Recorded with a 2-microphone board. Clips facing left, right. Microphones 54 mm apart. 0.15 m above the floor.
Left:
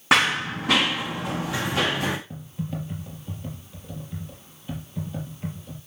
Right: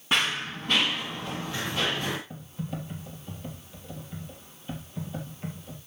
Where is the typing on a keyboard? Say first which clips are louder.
Left 3 dB; 5° left (ahead or behind), 4 m.